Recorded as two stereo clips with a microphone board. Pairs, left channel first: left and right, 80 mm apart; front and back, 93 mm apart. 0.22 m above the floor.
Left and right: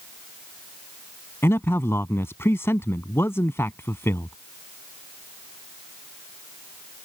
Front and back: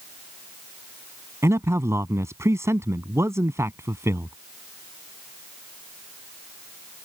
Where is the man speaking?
135° left.